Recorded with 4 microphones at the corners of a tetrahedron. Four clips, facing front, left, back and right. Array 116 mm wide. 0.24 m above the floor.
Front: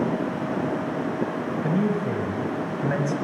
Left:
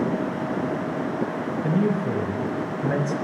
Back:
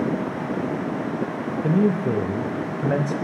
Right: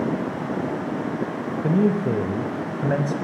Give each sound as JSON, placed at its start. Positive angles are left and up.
{"t": 1.6, "sound": "a man speaking", "azimuth_deg": -130, "distance_m": 0.9}